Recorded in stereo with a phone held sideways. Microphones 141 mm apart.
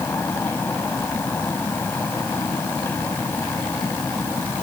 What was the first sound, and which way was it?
A fan, 15° left (ahead or behind).